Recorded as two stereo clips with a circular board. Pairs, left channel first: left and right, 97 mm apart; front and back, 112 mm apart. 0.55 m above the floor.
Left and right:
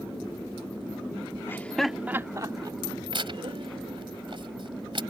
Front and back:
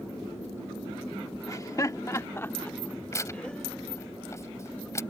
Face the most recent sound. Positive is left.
turn(degrees=-65)